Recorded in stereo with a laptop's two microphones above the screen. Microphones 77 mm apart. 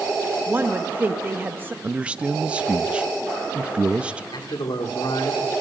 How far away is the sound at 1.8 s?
About 0.8 m.